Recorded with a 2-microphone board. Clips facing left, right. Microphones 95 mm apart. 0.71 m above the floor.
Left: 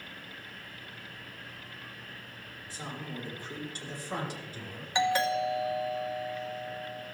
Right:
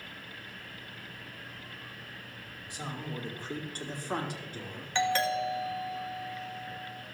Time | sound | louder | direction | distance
2.7 | a man speaking | right 1 dB | 20° right (ahead or behind) | 2 m
5.0 | a doorbell | left 1 dB | 15° left (ahead or behind) | 1.0 m